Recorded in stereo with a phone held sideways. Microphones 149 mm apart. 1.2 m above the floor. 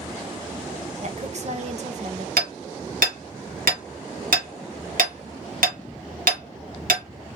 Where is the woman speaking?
55° right (ahead or behind), 0.9 m.